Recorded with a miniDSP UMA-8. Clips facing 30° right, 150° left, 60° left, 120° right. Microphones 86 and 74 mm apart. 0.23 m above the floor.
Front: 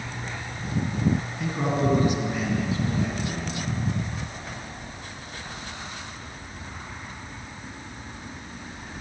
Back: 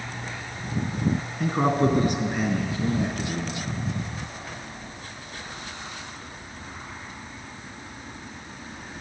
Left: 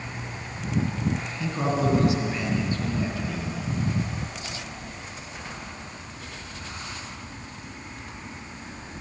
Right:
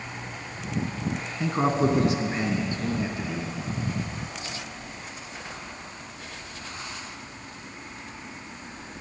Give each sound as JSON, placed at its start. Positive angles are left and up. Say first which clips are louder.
{"t": 1.4, "sound": "a man speaking", "louder": "back 5 dB, right 3 dB", "azimuth_deg": 180, "distance_m": 2.0}